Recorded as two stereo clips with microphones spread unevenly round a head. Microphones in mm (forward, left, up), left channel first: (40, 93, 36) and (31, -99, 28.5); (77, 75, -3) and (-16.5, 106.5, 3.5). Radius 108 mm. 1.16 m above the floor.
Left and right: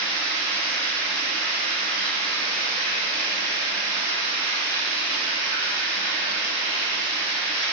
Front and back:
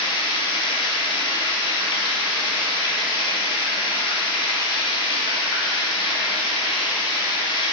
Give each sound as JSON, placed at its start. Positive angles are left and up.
{"t": 0.0, "sound": "running water", "azimuth_deg": 5, "distance_m": 0.8}